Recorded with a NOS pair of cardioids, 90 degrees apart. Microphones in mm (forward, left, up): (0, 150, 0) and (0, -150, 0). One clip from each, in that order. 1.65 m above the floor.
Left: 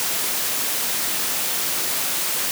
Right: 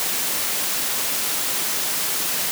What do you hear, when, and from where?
Only background noise.